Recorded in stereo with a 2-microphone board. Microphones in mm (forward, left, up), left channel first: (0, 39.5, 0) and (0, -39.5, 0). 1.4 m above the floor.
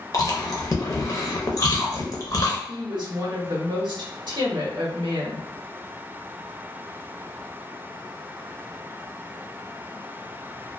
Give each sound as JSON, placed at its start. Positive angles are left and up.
{"t": 0.1, "sound": "chewing", "side_deg": 40, "distance_m": 0.6}
{"t": 2.7, "sound": "a woman speaking", "side_deg": -60, "distance_m": 0.8}